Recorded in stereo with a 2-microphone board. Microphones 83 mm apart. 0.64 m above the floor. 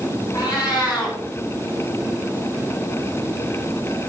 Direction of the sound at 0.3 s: 50° left (ahead or behind).